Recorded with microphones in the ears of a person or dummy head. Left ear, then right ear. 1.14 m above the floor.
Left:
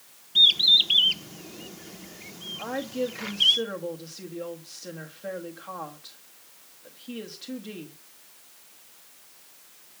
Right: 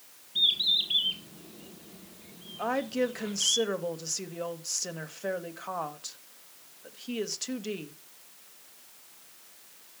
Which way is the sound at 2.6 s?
75° right (ahead or behind).